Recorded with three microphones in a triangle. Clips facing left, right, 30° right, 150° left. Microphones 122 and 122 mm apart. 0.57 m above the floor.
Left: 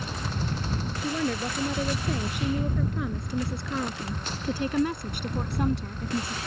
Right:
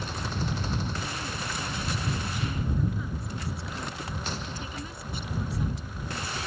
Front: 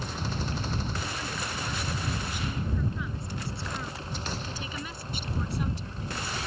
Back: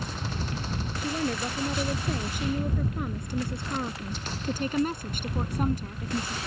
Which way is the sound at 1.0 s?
110° left.